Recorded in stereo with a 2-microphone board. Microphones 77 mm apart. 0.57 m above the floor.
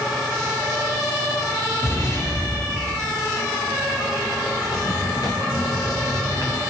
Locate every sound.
1.8 s an explosion: 45° left (ahead or behind), 6.5 m
4.6 s footsteps: 65° left (ahead or behind), 3 m; by 6.6 s 50° left (ahead or behind), 3.5 m